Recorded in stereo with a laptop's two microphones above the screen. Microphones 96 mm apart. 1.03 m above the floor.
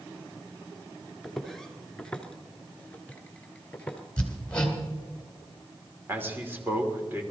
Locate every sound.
1.2 s footsteps: centre (ahead or behind), 1.0 m; by 4.0 s 15° left (ahead or behind), 1.6 m
4.2 s hammering: 10° left (ahead or behind), 2.5 m
6.1 s a man speaking: 20° right (ahead or behind), 3 m